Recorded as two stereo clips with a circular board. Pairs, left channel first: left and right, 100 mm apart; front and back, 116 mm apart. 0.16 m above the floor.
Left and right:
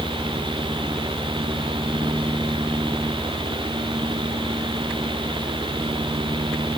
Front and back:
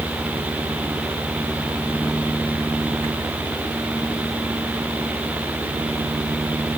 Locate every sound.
Only background noise.